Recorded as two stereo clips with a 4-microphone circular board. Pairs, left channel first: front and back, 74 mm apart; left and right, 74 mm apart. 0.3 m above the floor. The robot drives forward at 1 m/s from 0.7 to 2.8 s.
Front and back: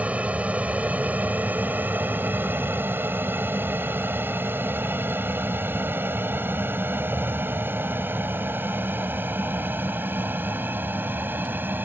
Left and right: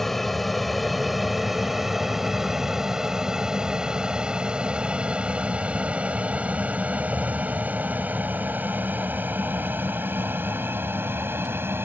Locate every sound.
0.0 s an aircraft: 170° left; by 11.9 s 130° right